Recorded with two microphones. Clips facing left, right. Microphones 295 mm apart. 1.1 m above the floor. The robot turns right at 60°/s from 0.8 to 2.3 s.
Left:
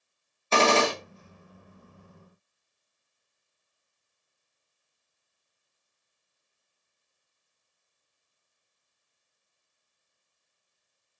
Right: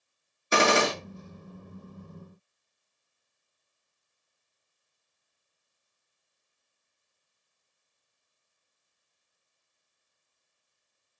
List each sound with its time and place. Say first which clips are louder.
0.5 s a gunshot: left 1 dB; 15° right (ahead or behind), 1.0 m; by 0.9 s 25° right (ahead or behind), 1.0 m